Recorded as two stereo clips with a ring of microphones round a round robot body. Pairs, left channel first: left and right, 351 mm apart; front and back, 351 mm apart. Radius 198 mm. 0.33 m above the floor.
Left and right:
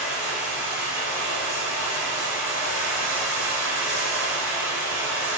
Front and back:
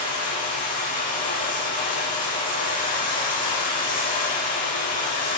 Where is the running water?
65° right, 4 m.